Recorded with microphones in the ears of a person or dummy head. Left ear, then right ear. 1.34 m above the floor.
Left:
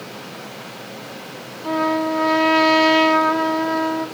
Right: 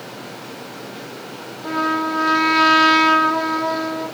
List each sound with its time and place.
1.6 s a trumpet: 20° right (ahead or behind), 0.7 m